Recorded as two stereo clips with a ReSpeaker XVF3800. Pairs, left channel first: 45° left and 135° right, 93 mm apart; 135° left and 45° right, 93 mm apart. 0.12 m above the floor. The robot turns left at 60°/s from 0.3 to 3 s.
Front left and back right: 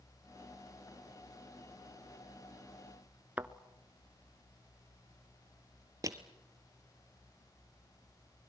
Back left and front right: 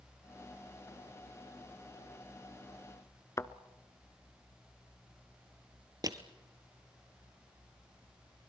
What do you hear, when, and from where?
3.4 s a thud: 165° left, 0.8 m
6.0 s crushing: 85° right, 1.4 m